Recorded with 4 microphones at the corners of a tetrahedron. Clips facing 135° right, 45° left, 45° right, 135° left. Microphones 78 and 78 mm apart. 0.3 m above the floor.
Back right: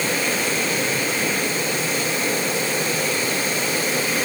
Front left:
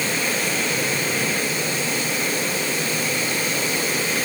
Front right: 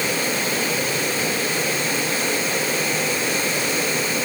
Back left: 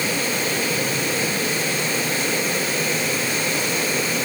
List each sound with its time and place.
Only background noise.